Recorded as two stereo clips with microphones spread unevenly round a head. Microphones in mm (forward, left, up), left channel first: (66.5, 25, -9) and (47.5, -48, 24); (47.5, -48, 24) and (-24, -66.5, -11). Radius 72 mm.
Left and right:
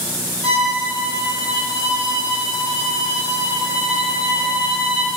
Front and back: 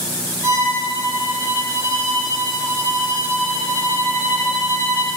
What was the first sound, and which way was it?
A violin, 135° right.